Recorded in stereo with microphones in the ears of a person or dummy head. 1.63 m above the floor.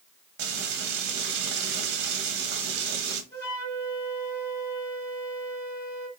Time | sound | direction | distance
0.4 | frying | 65° right (ahead or behind) | 0.8 m
3.3 | a flute | 15° left (ahead or behind) | 1.6 m